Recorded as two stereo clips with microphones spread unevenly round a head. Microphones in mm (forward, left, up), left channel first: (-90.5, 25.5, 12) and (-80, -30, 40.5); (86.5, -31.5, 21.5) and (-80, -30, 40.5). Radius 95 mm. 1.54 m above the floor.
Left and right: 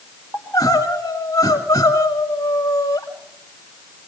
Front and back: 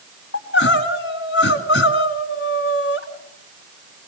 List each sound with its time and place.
0.3 s crying: 15° left, 2 m